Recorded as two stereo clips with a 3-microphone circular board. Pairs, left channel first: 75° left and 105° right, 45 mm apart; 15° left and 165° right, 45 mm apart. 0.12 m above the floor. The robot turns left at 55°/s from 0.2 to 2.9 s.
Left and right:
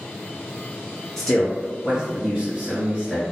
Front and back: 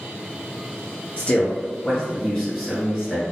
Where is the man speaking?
5° left, 1.9 m; by 3.2 s 90° right, 1.9 m.